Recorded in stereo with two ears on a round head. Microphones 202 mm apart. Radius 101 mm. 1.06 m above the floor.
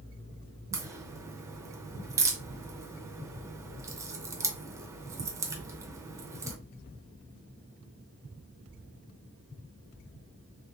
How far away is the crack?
About 0.7 m.